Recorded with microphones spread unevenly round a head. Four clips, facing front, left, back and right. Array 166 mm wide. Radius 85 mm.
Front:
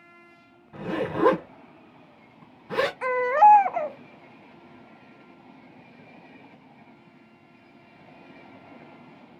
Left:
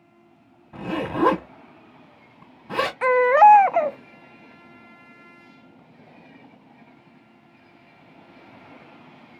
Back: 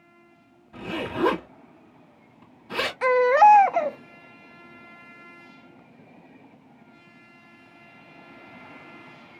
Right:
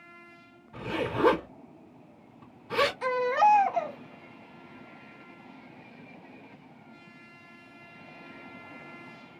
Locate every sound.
0.7 s a zipper: 80° left, 2 m
3.0 s a baby crying: 125° left, 0.5 m